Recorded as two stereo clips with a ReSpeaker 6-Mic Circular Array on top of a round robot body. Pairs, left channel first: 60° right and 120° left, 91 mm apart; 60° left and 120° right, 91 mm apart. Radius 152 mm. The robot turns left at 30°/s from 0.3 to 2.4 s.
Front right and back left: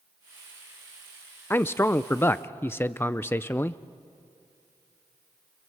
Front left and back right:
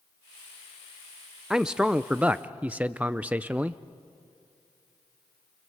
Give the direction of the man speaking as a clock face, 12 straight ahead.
2 o'clock.